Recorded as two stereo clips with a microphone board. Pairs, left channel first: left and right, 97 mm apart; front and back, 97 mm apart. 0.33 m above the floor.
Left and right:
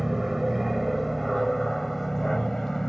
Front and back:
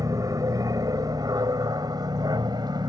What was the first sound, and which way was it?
An aircraft, 175° right.